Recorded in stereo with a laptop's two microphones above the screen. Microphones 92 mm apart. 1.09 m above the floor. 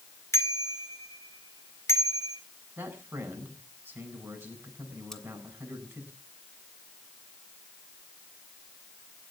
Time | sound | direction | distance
0.3 | a bicycle bell | 30° left (ahead or behind) | 2 m
2.8 | a man speaking | 25° right (ahead or behind) | 8.5 m
5.1 | cutlery clinking | 5° left (ahead or behind) | 2.5 m